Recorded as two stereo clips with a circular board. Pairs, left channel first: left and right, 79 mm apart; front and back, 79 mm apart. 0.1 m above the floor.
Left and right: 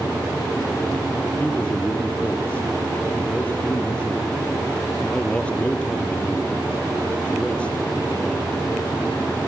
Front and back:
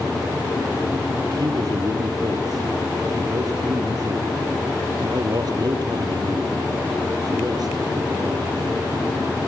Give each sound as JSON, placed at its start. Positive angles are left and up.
{"t": 1.4, "sound": "a man speaking", "azimuth_deg": 165, "distance_m": 3.0}